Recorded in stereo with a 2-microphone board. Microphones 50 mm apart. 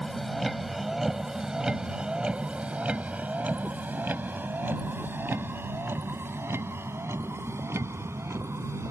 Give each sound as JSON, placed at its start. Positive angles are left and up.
{"t": 0.0, "sound": "a vehicle", "side_deg": 5}